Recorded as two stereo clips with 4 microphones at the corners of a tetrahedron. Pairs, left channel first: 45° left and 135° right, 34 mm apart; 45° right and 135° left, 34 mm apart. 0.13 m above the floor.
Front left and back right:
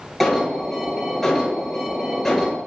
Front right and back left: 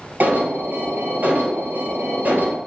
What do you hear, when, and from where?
0.2 s an alarm: 125° left, 3 m